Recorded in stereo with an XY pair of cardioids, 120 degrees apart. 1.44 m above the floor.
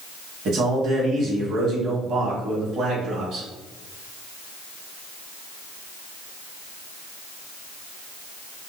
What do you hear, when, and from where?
0.5 s a man speaking: 65° right, 1.7 m